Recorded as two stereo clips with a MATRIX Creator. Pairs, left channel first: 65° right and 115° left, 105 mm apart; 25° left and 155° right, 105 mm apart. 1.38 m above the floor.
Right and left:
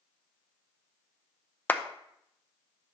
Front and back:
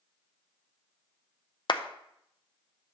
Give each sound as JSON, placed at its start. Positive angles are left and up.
{"t": 1.7, "sound": "a clap", "azimuth_deg": 0, "distance_m": 0.5}